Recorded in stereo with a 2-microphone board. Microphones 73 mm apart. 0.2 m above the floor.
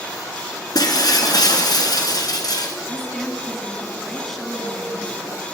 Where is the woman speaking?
5° left (ahead or behind), 1.9 m.